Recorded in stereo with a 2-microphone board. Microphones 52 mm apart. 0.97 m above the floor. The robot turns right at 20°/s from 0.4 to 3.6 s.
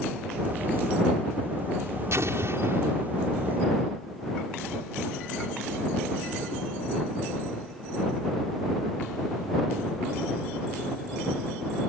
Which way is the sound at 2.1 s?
65° right (ahead or behind).